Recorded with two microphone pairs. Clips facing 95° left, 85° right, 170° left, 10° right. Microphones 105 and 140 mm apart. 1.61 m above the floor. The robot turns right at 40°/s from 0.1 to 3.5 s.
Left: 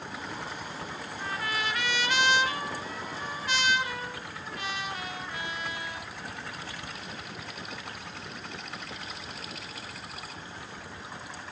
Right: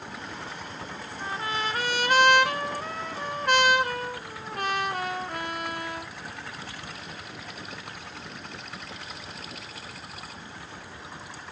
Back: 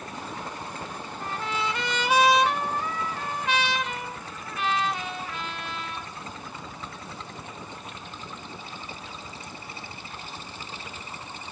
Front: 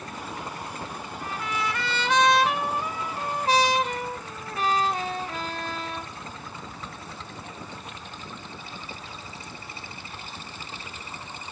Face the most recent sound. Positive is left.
turn(degrees=-60)